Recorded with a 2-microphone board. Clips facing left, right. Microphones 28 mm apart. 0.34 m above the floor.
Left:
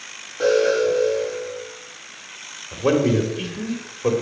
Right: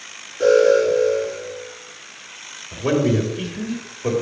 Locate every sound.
0.4 s an alarm: 55° left (ahead or behind), 4 m
2.7 s a man speaking: 20° left (ahead or behind), 1.5 m